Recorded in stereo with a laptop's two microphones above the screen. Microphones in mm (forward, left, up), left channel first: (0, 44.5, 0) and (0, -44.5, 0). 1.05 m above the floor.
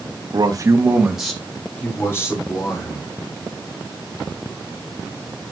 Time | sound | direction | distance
0.3 | a man speaking | 55° right (ahead or behind) | 1.5 m